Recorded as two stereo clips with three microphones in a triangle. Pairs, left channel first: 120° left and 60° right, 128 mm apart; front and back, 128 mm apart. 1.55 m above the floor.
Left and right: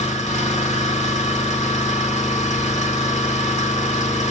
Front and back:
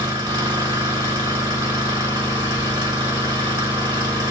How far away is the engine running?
About 2 m.